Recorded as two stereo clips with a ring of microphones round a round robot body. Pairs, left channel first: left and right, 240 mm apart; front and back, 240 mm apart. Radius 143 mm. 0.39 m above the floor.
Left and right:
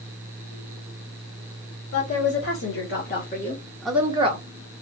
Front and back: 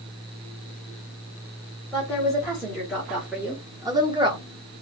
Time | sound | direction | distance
1.9 | a woman speaking | 80° left | 2.5 m